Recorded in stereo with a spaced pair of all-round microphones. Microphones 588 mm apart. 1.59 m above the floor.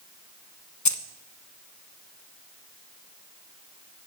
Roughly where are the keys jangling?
Left.